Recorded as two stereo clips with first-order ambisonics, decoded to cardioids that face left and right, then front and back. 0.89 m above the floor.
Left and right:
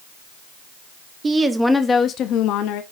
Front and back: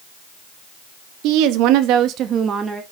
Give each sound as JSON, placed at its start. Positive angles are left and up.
{"t": 1.2, "sound": "a woman speaking", "azimuth_deg": -160, "distance_m": 1.3}